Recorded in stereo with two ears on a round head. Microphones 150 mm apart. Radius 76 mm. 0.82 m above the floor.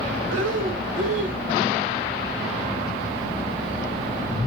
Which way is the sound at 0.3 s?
90° right.